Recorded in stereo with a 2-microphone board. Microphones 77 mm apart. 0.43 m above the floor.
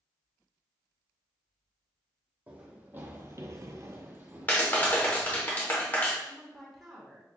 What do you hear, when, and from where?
2.5 s running footsteps: 20° right (ahead or behind), 1.0 m; by 5.5 s 10° right (ahead or behind), 1.5 m
4.5 s a clap: 25° left (ahead or behind), 0.8 m
6.3 s a woman speaking: 5° left (ahead or behind), 1.0 m